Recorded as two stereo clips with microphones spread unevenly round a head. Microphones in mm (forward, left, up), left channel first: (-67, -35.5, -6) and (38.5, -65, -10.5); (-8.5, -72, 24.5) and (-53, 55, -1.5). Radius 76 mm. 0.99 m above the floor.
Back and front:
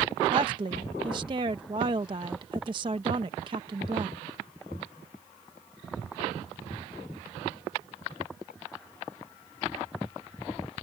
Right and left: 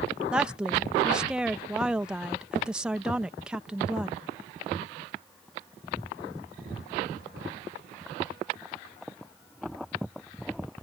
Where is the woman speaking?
35° left.